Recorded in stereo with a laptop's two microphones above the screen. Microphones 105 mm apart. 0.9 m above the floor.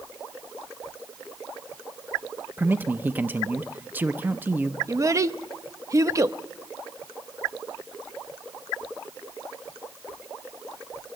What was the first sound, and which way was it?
A man speaking, 20° right (ahead or behind).